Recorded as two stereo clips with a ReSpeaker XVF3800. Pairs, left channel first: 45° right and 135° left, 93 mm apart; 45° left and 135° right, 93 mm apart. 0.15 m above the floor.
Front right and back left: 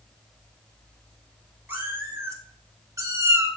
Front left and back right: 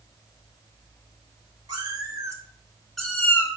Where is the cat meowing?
160° right, 1.0 m; by 3.5 s 90° left, 0.7 m.